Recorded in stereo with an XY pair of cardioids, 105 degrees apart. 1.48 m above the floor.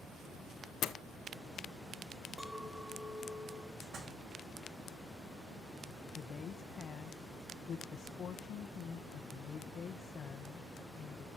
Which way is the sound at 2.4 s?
5° right.